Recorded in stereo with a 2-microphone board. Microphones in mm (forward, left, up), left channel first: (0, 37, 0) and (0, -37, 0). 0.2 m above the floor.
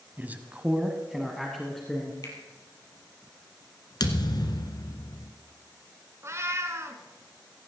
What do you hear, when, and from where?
0.2 s a man speaking: 25° right (ahead or behind), 1.3 m; by 2.1 s 5° left (ahead or behind), 2.5 m
2.2 s a finger snap: 55° left (ahead or behind), 3.5 m
4.0 s a thud: 65° left (ahead or behind), 1.4 m
6.2 s a cat meowing: 40° right (ahead or behind), 1.3 m